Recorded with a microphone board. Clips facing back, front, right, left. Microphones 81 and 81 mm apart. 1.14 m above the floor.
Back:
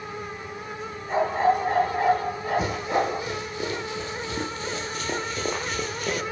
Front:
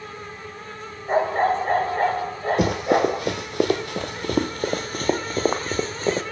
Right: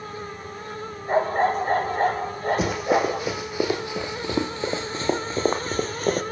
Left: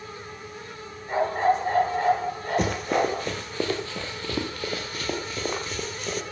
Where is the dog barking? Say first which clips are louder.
Front 2 dB, right 1 dB; 45° right, 8.5 m.